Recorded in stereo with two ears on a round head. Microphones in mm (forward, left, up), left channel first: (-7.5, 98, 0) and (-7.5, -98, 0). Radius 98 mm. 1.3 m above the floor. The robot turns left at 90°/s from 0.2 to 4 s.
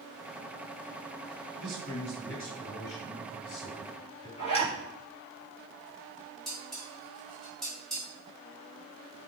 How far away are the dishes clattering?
About 3 m.